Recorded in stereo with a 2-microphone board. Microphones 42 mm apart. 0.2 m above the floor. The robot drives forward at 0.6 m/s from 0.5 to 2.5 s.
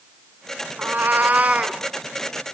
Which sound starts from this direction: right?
A cat meowing, at 0.8 s.